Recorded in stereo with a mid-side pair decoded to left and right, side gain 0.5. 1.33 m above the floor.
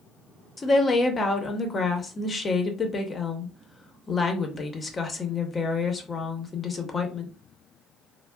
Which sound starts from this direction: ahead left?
A woman speaking, at 0.6 s.